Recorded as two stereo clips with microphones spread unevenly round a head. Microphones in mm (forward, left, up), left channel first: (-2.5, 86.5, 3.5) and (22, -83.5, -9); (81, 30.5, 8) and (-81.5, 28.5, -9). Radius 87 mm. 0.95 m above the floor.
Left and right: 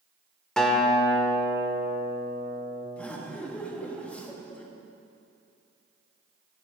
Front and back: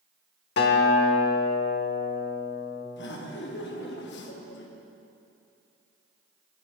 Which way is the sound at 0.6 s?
15° left.